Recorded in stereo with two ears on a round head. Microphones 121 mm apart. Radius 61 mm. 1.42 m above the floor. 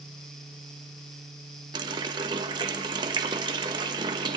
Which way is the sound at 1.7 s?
30° right (ahead or behind).